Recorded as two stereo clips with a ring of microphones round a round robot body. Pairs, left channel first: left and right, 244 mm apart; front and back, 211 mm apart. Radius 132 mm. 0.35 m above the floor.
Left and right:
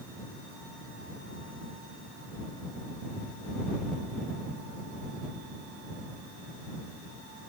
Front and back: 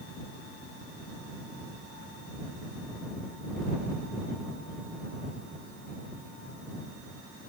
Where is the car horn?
I don't hear a car horn.